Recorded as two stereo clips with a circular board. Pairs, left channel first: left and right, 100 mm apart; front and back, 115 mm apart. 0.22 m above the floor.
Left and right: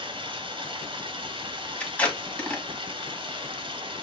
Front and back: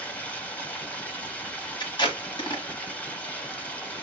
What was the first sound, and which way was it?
Running water, 75° right.